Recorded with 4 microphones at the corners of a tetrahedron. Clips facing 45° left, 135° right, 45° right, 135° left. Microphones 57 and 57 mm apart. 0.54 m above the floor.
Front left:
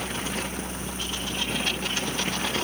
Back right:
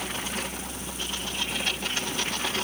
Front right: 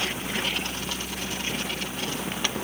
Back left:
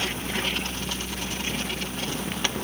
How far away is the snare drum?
I don't hear a snare drum.